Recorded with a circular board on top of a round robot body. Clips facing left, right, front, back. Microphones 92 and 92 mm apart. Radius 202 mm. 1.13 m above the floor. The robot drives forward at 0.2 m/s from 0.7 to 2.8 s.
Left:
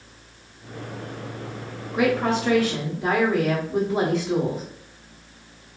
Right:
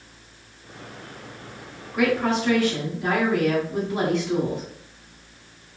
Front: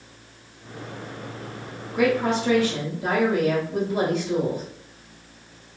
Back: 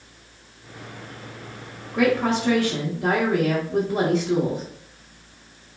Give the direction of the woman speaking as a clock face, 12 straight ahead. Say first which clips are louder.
Even, back 1 dB; 7 o'clock.